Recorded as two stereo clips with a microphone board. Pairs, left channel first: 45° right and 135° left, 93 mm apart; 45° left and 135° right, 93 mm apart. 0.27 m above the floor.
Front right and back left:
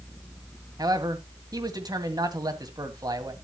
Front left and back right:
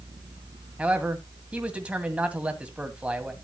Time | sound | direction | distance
0.8 | a man speaking | 155° left | 1.7 m